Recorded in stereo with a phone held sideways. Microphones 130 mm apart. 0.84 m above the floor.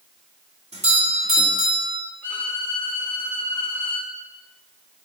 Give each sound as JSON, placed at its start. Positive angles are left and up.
{"t": 0.7, "sound": "a doorbell", "side_deg": -55, "distance_m": 1.9}
{"t": 2.2, "sound": "a violin", "side_deg": 15, "distance_m": 2.5}